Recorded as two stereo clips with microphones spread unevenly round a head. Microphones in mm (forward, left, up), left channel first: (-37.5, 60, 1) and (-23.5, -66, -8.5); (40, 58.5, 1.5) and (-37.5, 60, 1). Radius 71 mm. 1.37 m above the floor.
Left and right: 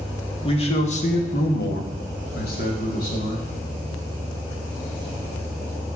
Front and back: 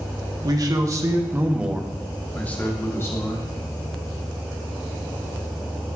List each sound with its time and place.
0.4 s a man speaking: 145° left, 1.3 m; by 3.5 s 50° left, 1.7 m